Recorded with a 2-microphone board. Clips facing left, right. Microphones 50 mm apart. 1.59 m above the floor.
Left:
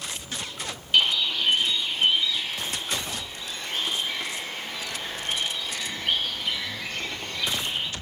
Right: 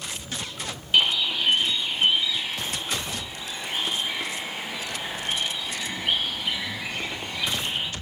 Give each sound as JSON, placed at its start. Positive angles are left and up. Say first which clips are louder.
{"t": 0.9, "sound": "a bird", "louder": "right 1 dB", "side_deg": -10, "distance_m": 1.0}